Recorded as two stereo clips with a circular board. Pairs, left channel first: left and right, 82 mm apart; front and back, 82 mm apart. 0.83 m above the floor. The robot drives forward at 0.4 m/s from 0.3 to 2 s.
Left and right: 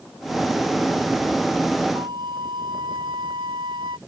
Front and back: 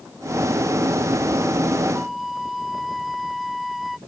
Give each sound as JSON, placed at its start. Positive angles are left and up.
{"t": 1.9, "sound": "a flute", "azimuth_deg": -90}